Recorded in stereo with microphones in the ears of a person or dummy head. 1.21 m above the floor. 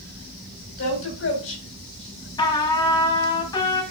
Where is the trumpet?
20° left (ahead or behind), 1.6 m.